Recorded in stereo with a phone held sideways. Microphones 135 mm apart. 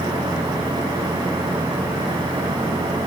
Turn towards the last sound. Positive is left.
turn(degrees=-35)  # may be behind; listen again after turning